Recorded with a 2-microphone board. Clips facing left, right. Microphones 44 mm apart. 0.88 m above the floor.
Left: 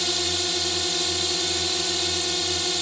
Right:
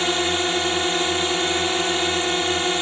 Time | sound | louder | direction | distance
0.0 | a drone | right 6 dB | 35° right (ahead or behind) | ?